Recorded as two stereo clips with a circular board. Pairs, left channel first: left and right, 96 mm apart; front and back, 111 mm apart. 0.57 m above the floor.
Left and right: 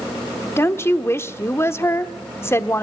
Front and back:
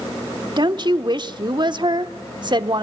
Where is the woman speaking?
145° left, 1.1 m.